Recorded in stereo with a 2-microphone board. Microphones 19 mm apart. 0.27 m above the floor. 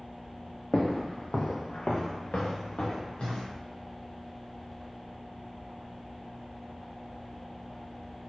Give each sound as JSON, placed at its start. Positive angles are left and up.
{"t": 0.7, "sound": "footsteps", "side_deg": 30, "distance_m": 0.6}